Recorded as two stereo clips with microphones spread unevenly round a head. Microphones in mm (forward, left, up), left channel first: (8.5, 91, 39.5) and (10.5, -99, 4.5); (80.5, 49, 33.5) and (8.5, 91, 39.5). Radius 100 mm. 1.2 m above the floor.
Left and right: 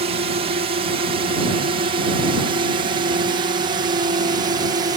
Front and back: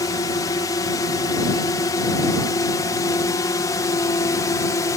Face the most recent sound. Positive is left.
turn(degrees=-45)